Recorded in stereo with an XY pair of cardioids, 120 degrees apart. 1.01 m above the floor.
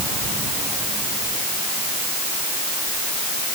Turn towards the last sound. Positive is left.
No sound to turn to.